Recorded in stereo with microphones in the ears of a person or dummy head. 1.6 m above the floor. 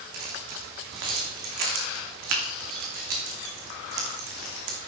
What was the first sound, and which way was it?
Keys jangling, 55° right (ahead or behind).